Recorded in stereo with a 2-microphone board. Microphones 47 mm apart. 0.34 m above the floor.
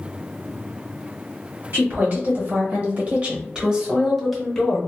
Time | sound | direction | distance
1.7 | a woman speaking | 50° right (ahead or behind) | 1.8 m